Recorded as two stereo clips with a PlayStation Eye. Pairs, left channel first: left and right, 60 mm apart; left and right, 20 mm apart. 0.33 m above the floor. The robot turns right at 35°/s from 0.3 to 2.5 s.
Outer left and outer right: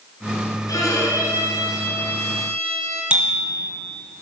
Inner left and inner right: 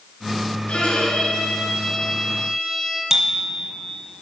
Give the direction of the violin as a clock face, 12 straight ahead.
9 o'clock.